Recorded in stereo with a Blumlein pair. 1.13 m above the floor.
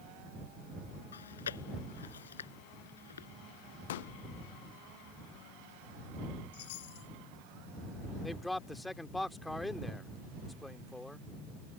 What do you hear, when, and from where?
1.1 s chewing: 65° left
3.9 s a pop: 55° left
6.5 s a chime: 50° left
8.2 s a man speaking: 5° left